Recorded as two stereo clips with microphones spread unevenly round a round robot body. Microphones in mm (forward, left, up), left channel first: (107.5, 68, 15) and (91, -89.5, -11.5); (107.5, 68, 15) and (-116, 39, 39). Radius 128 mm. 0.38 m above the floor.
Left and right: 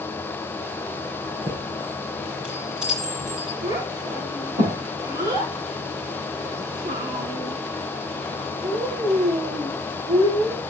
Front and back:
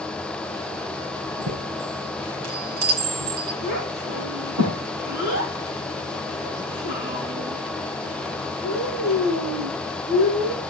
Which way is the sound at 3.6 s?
145° right.